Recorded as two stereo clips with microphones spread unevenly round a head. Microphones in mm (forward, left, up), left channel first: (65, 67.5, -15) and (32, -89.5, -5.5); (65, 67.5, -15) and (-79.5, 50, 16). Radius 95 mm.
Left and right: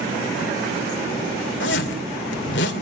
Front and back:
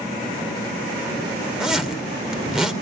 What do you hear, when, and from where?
1.6 s a zipper: 105° left, 2.5 m